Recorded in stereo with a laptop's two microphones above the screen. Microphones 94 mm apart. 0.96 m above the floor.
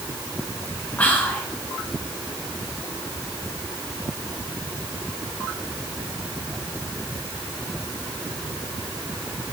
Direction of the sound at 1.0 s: 15° left (ahead or behind).